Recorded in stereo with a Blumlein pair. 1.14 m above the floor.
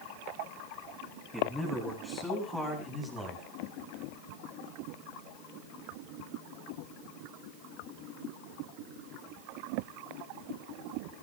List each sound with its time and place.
1.3 s a man speaking: 5° left, 10 m; by 3.5 s 15° left, 8 m